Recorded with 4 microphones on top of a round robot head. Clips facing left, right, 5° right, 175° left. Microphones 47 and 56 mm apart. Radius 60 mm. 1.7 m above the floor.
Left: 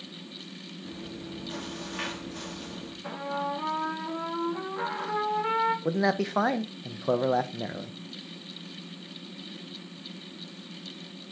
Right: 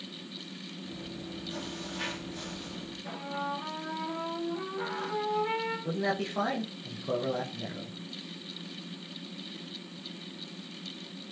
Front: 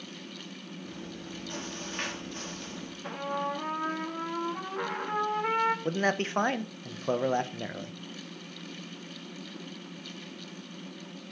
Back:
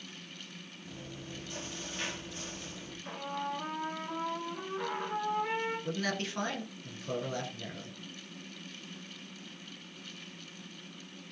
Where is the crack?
I don't hear a crack.